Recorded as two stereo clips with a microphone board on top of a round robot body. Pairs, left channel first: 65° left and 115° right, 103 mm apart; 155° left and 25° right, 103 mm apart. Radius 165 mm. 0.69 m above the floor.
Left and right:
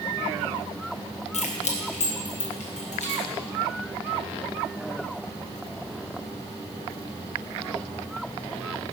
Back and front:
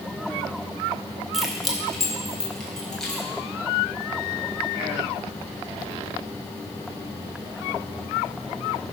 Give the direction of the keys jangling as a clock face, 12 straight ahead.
10 o'clock.